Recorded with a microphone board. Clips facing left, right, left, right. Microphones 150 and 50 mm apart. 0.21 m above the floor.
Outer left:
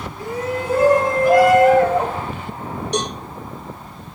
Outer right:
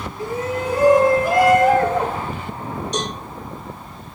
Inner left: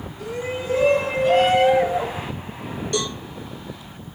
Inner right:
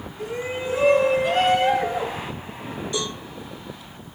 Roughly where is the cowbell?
Left.